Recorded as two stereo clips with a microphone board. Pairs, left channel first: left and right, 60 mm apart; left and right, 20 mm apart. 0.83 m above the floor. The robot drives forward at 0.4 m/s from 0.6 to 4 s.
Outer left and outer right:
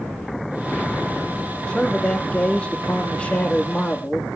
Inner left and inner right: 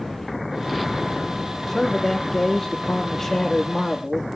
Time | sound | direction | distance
1.7 | a man speaking | 10° left (ahead or behind) | 2 m